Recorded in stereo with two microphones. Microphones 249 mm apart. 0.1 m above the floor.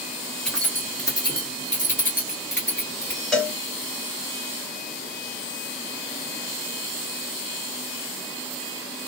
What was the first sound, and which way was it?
Keys jangling, centre (ahead or behind).